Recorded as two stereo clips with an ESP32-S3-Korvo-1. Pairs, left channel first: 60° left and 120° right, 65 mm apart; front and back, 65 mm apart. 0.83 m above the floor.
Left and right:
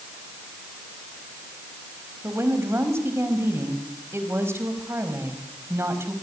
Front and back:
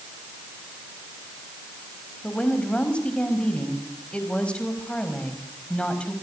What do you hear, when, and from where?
2.2 s a woman speaking: 75° right, 5 m